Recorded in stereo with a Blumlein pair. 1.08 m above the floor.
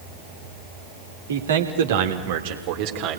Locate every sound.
1.3 s a man speaking: 70° right, 3.5 m; by 3.2 s 45° right, 3.5 m